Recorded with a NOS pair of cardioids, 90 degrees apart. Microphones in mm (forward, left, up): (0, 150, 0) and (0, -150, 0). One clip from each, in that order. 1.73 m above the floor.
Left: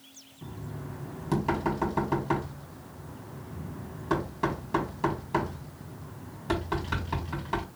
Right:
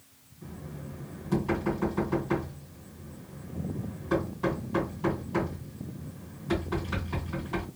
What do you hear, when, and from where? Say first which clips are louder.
0.4 s knocking: left 2 dB; 55° left, 2.5 m